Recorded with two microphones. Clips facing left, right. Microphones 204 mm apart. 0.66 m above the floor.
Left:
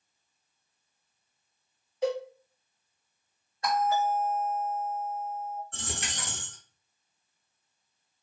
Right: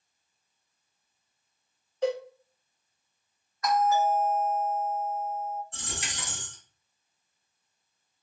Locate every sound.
2.0 s a cowbell: 5° left (ahead or behind), 1.4 m
3.6 s a doorbell: 30° left (ahead or behind), 1.0 m
5.7 s a dropped coin: 60° left (ahead or behind), 1.0 m